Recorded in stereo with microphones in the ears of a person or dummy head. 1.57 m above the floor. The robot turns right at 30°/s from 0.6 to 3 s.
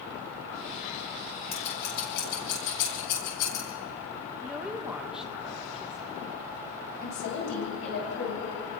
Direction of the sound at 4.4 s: 10° right (ahead or behind).